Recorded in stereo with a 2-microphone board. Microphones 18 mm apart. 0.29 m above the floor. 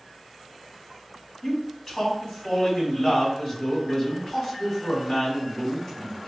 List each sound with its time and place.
1.4 s a man speaking: 25° left (ahead or behind), 2.5 m